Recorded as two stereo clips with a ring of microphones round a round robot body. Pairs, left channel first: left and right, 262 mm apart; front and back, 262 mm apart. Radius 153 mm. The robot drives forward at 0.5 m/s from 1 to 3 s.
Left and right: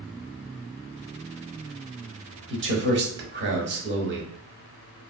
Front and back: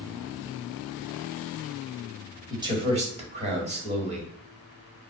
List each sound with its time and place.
2.5 s a man speaking: 105° right, 1.2 m; by 4.3 s 120° right, 1.3 m